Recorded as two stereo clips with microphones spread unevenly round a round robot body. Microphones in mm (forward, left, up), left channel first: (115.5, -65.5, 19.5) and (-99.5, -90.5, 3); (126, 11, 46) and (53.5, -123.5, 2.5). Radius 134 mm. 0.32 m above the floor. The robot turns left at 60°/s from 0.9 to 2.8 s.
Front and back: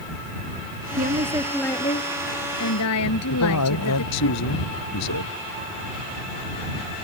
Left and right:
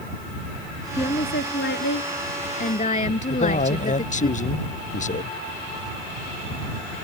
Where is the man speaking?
25° left.